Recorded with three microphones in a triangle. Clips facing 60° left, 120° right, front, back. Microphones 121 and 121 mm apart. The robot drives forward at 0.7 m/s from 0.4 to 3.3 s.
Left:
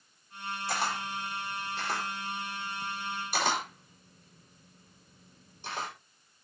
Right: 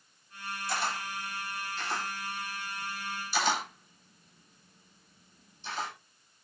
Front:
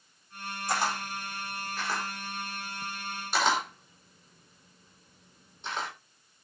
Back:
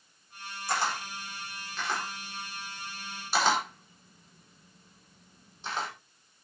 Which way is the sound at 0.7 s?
70° left.